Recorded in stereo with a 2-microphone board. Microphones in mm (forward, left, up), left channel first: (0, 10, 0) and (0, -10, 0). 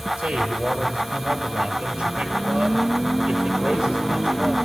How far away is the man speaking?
About 5.5 m.